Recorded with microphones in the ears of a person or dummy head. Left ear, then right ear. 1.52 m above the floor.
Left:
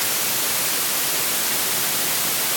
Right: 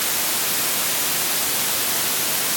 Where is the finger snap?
I don't hear a finger snap.